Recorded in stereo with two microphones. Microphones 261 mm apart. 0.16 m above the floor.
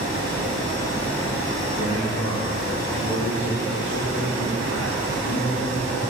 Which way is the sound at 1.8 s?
50° left (ahead or behind).